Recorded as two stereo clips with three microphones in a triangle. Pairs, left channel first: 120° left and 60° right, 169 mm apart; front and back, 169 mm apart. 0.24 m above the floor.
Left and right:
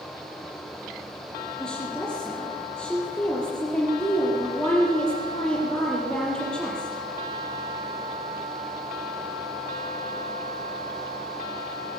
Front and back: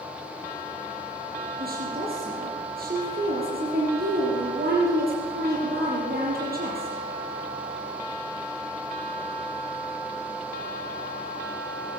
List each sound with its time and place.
1.6 s a woman speaking: 155° right, 7 m